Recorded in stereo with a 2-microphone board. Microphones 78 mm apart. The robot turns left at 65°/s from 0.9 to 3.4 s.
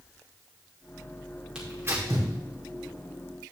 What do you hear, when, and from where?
1.6 s tearing paper: 10° right (ahead or behind), 3.5 m; by 2.3 s 60° right (ahead or behind), 3.5 m